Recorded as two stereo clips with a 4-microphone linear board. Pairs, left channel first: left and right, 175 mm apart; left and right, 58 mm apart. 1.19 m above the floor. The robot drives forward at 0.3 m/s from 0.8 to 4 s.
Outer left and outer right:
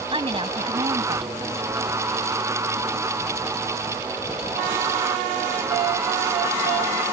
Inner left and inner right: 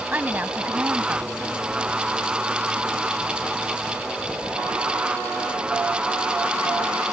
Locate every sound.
0.1 s a woman speaking: 35° right (ahead or behind)